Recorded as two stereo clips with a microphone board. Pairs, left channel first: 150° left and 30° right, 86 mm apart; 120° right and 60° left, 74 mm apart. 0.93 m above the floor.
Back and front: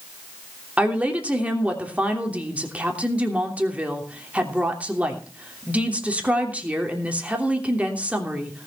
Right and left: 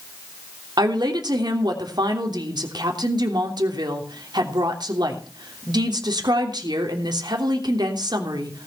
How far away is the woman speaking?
About 3 m.